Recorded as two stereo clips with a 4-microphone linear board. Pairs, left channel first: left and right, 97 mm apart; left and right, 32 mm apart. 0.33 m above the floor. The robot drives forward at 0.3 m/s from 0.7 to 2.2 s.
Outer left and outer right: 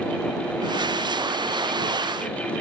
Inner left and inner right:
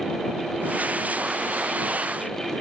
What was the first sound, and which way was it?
Only background noise.